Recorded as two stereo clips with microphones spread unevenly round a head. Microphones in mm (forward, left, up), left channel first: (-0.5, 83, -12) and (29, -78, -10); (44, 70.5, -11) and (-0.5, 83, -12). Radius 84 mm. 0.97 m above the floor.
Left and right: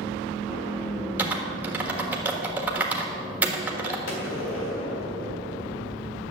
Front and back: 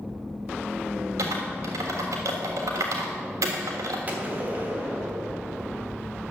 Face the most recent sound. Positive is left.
turn(degrees=105)